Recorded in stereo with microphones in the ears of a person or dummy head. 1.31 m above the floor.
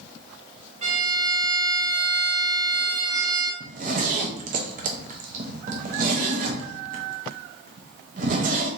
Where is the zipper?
40° right (ahead or behind), 0.7 m.